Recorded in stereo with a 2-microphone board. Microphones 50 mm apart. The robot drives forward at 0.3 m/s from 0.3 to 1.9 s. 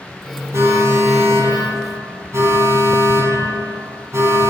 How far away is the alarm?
About 7.5 m.